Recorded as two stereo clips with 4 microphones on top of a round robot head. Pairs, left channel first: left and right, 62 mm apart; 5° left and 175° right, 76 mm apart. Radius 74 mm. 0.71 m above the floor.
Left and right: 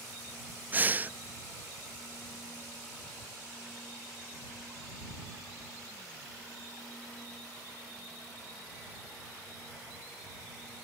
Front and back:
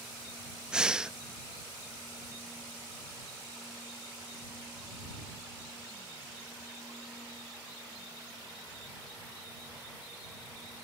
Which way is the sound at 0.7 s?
110° right.